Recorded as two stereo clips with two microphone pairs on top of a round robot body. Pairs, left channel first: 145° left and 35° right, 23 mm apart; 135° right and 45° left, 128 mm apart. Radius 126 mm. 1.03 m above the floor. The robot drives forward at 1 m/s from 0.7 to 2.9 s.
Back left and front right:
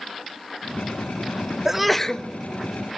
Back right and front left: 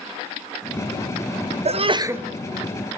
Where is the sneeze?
35° left, 0.6 m; by 2.2 s 140° left, 0.6 m.